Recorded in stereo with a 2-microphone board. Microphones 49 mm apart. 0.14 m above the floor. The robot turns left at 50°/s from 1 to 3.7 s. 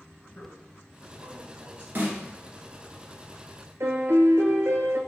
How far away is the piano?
About 0.6 m.